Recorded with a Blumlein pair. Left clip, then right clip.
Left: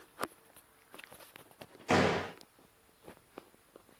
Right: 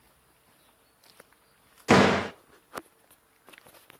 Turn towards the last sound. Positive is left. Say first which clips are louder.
# right 8 dB
turn(degrees=-60)